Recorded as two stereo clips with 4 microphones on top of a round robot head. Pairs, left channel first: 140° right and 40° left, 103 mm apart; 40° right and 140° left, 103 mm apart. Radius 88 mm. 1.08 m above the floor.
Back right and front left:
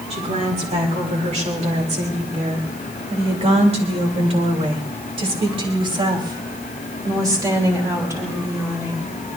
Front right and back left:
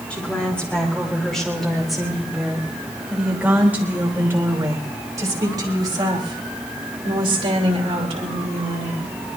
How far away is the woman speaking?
About 4.5 m.